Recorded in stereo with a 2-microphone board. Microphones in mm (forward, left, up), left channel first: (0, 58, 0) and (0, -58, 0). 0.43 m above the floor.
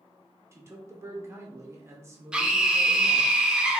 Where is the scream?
10° right (ahead or behind), 0.9 m.